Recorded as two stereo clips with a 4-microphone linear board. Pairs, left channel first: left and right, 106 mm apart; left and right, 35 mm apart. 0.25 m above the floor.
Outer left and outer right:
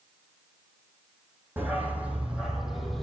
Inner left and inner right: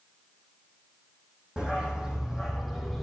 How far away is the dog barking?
About 3.5 m.